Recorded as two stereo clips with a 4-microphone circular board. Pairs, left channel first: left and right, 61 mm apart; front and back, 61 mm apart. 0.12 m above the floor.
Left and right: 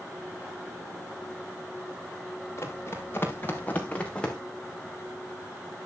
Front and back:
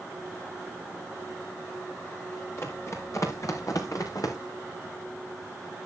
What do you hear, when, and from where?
2.6 s running footsteps: 45° left, 4.5 m; by 4.4 s 15° left, 4.5 m